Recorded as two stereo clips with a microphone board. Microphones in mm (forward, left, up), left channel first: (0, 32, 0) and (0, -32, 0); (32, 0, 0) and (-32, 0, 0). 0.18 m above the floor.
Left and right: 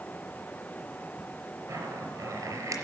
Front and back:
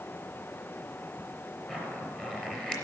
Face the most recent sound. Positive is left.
turn(degrees=-75)